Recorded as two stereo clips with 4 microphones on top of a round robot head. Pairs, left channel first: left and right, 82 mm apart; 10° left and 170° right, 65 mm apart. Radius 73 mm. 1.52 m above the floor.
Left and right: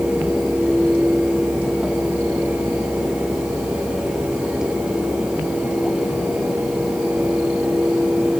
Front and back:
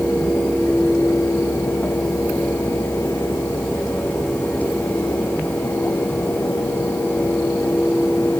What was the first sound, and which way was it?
Only background noise.